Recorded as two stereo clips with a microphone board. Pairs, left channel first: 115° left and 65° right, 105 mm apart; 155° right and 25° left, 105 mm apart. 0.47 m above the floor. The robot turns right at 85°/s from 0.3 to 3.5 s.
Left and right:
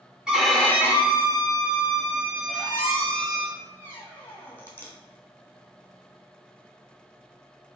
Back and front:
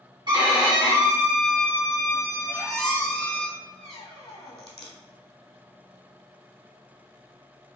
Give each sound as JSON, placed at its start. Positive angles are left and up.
{"t": 0.3, "sound": "a violin", "azimuth_deg": 15, "distance_m": 1.0}
{"t": 2.5, "sound": "a squeak", "azimuth_deg": 90, "distance_m": 1.4}